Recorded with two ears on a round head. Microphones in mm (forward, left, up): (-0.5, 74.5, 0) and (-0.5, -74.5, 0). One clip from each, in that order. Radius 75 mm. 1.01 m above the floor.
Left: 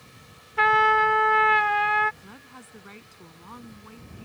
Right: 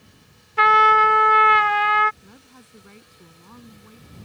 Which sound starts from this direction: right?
A trumpet, at 0.6 s.